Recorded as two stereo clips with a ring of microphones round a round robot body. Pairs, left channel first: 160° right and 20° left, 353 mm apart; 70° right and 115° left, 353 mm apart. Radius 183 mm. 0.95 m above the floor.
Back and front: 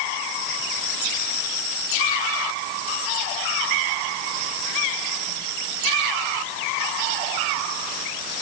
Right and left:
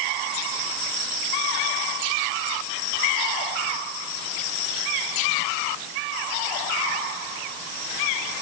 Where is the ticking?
No ticking in this recording.